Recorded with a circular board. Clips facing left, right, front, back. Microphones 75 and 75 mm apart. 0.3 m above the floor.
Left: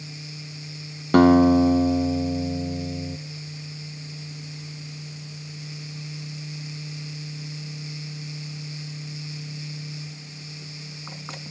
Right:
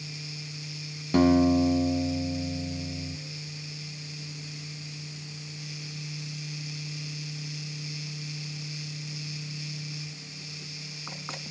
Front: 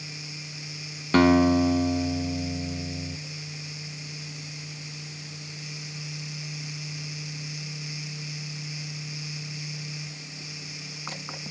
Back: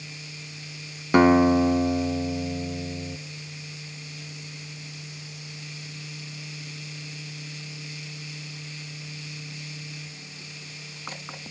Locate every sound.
1.1 s a guitar: 105° left, 0.8 m